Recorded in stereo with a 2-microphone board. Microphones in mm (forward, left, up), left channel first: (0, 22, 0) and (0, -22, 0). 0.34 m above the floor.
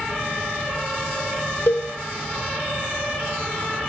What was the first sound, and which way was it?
A cowbell, 85° left.